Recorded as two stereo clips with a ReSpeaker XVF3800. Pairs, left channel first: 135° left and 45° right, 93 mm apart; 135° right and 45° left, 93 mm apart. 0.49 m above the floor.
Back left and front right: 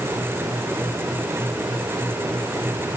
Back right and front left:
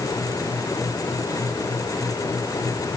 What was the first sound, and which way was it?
Only background noise.